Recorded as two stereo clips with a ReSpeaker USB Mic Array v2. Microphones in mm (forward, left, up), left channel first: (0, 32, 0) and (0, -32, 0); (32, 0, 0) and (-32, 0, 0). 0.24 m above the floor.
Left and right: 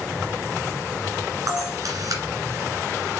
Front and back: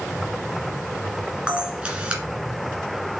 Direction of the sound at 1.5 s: 110° right.